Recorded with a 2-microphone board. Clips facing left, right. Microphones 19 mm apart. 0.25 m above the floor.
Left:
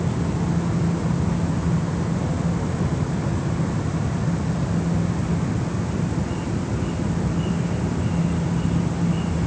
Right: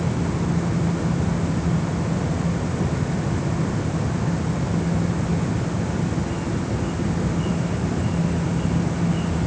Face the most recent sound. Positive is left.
No sound to turn to.